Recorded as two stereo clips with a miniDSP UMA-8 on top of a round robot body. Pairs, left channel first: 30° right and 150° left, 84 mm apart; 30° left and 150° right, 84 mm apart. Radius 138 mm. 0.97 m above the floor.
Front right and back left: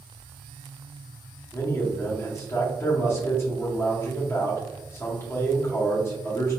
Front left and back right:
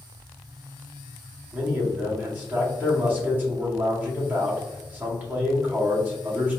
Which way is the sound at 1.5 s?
85° right.